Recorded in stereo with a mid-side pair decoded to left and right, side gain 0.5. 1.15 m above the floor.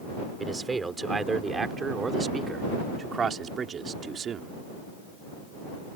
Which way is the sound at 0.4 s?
20° right.